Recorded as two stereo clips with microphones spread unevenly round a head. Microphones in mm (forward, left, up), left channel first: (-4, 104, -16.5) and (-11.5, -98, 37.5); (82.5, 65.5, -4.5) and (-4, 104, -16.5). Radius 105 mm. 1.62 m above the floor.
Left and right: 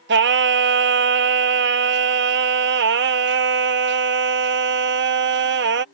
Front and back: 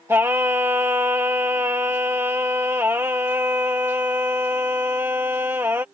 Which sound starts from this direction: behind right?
Singing, at 0.1 s.